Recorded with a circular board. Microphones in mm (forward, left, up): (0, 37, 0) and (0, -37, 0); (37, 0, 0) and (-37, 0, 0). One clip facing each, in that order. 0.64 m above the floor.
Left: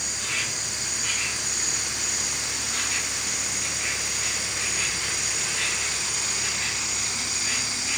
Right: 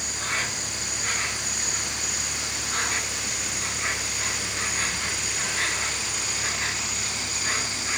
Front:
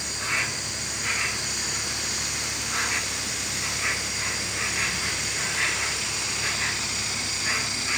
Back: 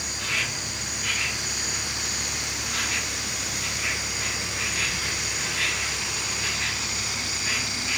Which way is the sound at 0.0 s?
55° right.